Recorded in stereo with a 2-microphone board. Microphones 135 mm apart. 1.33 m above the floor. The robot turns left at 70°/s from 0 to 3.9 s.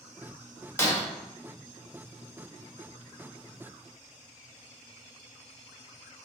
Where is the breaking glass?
20° left (ahead or behind), 0.8 m; by 1.0 s 30° left (ahead or behind), 0.8 m.